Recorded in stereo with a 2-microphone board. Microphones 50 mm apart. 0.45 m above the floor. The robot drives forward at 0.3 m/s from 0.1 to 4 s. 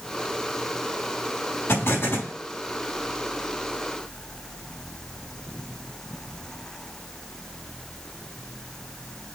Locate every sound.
1.7 s an explosion: 60° left (ahead or behind), 4.5 m